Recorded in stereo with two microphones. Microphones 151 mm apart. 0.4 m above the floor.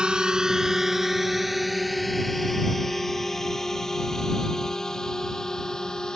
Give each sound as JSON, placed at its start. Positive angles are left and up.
{"t": 0.0, "sound": "a drone", "side_deg": -5}